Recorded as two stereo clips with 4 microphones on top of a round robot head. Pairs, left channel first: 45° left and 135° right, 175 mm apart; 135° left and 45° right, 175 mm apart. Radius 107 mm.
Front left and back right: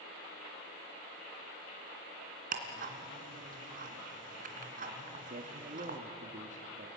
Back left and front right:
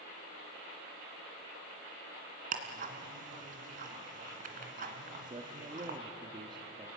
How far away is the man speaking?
About 1.5 m.